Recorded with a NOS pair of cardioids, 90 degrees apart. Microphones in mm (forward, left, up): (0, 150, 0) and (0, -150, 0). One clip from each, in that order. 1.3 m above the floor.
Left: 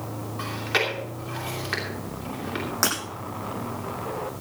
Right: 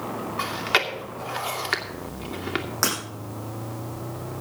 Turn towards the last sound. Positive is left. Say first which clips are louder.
# even
turn(degrees=0)